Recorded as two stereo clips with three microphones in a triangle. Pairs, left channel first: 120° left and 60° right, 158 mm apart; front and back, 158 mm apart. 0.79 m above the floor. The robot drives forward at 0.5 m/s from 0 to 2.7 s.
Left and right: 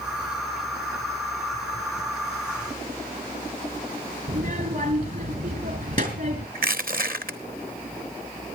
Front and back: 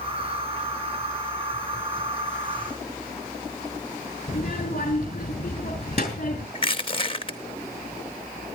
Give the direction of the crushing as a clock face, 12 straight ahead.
2 o'clock.